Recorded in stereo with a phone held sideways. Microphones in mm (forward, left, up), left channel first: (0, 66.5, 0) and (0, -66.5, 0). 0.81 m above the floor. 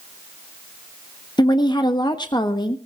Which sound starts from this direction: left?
A woman speaking, at 1.4 s.